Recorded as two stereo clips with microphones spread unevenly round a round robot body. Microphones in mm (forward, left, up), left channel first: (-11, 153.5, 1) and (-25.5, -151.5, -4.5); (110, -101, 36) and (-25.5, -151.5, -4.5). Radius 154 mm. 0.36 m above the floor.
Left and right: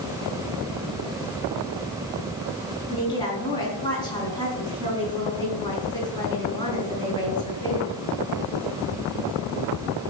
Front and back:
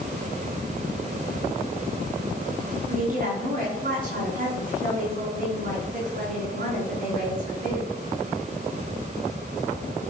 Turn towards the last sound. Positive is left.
turn(degrees=165)